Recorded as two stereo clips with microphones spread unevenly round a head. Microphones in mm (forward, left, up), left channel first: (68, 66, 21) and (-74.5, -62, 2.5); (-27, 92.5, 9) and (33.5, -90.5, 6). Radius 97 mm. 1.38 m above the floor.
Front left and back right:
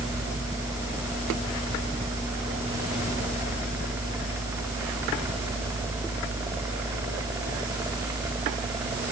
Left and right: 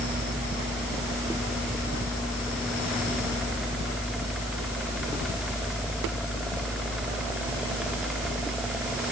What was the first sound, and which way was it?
Only background noise.